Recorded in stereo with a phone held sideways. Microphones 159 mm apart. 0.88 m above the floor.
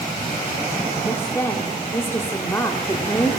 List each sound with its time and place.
1.1 s a woman speaking: 15° left (ahead or behind), 2 m